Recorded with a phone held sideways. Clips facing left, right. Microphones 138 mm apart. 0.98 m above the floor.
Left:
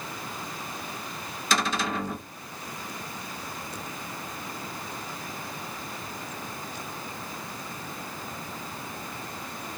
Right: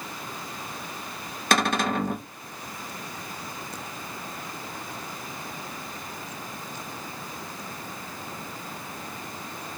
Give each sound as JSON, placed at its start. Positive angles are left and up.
{"t": 1.5, "sound": "a cupboard door", "side_deg": -55, "distance_m": 0.7}